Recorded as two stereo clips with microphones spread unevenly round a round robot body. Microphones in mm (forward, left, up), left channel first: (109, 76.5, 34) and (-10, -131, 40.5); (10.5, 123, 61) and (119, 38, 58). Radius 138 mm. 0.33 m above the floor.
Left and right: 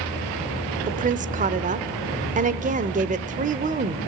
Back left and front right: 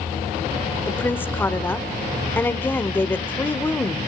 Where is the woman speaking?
150° right, 0.9 m.